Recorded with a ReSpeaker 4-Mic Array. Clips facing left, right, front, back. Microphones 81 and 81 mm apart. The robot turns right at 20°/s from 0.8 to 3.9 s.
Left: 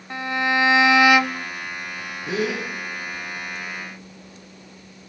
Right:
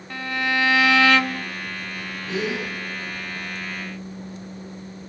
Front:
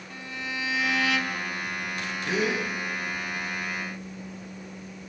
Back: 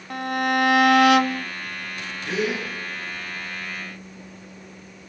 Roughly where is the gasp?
Left.